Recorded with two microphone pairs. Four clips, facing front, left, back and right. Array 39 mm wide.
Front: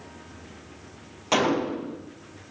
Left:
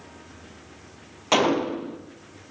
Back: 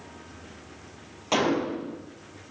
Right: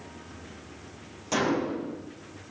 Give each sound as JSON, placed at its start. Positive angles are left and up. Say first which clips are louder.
{"t": 1.3, "sound": "a gunshot", "louder": "left 5 dB, front 1 dB", "azimuth_deg": 70, "distance_m": 1.0}